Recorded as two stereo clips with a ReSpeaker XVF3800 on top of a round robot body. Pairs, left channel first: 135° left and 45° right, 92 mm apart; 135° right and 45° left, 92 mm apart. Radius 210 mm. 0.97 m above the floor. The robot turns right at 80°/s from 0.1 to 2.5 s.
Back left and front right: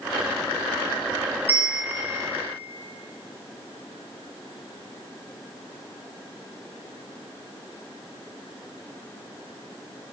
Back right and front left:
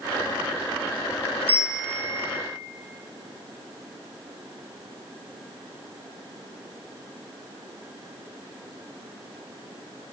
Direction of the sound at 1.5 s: 25° left.